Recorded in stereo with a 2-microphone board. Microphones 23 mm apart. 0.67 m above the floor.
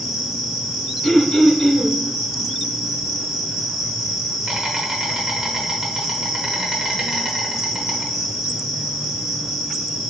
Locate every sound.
0.0 s an insect: 20° right (ahead or behind), 1.0 m
1.0 s throat clearing: 40° left (ahead or behind), 1.3 m